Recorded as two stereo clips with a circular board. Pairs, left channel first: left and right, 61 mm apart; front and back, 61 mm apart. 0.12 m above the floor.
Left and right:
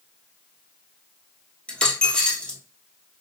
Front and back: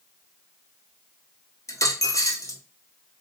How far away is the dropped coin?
About 1.0 m.